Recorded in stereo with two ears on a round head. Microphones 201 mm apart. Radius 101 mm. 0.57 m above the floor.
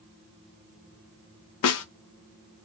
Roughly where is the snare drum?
Left.